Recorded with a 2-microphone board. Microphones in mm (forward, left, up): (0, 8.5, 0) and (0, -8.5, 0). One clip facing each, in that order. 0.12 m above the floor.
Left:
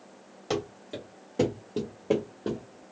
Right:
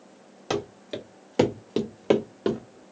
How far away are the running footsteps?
About 0.9 m.